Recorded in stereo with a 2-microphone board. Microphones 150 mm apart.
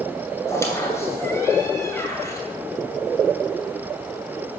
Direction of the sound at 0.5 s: 20° left (ahead or behind).